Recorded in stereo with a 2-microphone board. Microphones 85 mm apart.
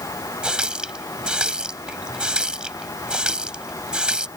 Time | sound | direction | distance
0.4 | a running tap | 10° right (ahead or behind) | ?